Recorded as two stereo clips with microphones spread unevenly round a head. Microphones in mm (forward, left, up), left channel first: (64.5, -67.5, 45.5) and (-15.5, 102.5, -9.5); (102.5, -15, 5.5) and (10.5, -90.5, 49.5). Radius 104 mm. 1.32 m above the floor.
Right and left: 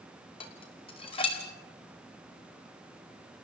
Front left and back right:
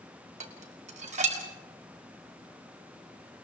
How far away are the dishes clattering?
About 2 m.